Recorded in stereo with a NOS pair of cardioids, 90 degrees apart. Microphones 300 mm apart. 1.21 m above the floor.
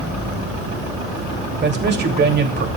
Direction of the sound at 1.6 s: 35° right.